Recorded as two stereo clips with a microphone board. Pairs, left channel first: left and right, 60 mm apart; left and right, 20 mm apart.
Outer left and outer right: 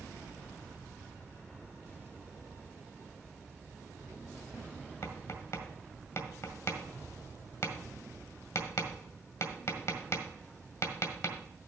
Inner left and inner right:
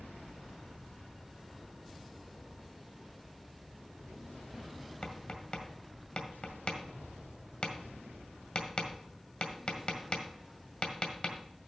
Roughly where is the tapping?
Left.